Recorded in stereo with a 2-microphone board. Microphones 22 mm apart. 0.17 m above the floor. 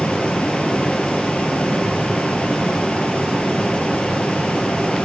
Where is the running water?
70° left (ahead or behind), 1.1 m.